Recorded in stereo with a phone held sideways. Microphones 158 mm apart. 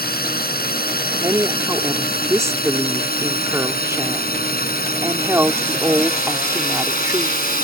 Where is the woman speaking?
20° right (ahead or behind).